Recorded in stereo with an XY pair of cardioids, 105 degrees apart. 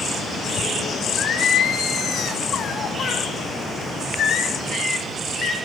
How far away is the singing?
About 1.1 m.